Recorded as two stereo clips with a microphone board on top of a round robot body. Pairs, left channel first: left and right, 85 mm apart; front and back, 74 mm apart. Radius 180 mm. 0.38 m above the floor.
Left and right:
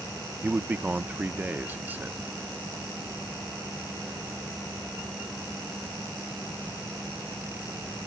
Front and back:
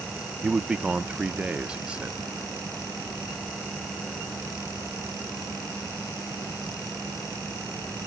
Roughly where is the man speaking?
Behind right.